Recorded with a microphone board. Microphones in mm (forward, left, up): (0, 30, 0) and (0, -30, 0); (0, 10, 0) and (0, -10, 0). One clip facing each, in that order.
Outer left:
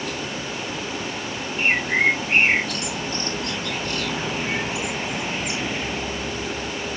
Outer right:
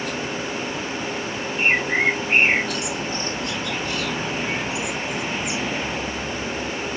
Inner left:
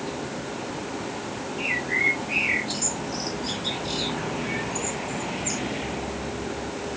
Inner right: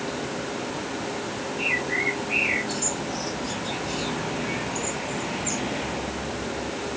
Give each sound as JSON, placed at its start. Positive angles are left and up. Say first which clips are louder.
{"t": 1.6, "sound": "a bird", "louder": "even, inner left 1 dB", "side_deg": 50, "distance_m": 2.0}